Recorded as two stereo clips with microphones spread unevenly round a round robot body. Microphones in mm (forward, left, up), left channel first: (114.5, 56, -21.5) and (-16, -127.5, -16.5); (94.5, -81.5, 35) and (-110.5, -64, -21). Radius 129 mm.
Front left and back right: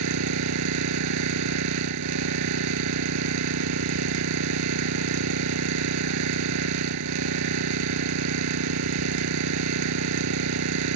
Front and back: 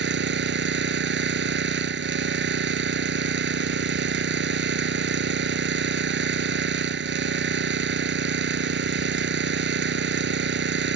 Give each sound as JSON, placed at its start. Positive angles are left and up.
{"t": 0.0, "sound": "an engine running", "azimuth_deg": -150}